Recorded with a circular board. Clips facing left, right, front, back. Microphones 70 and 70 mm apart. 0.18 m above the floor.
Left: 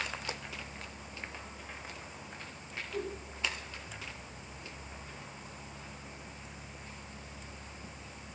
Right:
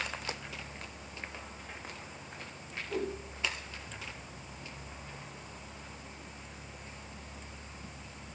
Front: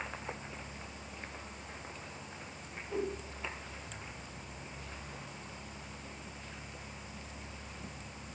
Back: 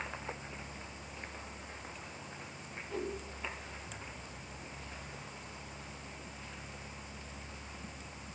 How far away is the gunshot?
I don't hear a gunshot.